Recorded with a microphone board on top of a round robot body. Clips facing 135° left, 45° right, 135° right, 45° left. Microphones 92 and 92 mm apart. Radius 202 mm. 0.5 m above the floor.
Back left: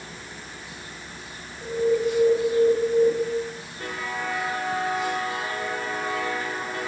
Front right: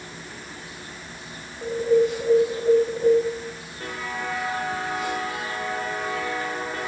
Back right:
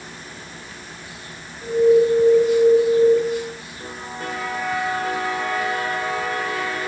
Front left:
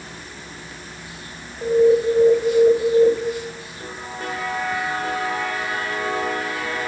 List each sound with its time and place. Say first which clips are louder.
1.6 s an alarm: front right 3 dB, back right 1 dB; 30° left, 6.5 m